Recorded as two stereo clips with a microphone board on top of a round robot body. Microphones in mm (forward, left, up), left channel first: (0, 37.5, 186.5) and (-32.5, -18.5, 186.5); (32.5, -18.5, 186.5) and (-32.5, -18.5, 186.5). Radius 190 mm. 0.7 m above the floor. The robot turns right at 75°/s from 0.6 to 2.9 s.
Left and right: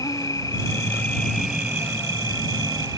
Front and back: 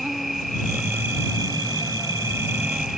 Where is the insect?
90° left; by 3.0 s 95° right.